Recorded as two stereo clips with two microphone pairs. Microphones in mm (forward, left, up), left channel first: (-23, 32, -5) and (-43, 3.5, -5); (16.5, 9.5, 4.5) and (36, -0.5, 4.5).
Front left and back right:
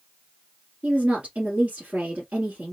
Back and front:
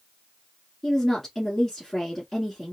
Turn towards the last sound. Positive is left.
turn(degrees=-145)